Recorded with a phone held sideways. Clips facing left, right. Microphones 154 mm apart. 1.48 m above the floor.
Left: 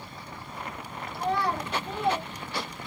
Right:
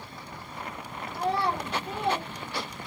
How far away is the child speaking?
About 1.0 m.